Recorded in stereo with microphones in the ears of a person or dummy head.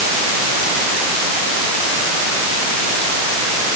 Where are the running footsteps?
I don't hear running footsteps.